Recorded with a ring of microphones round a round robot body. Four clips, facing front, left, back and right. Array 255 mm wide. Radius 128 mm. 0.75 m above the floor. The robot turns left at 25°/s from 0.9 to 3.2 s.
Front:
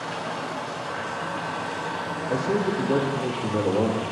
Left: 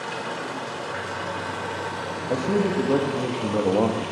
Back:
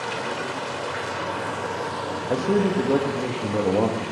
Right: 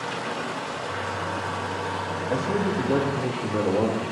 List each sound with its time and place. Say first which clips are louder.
0.0 s running water: right 1 dB, back 2 dB; 175° right, 1.5 m; by 4.1 s 125° left, 1.5 m
2.3 s a man speaking: left 3 dB, back 3 dB; 150° left, 1.0 m; by 4.1 s 130° left, 1.0 m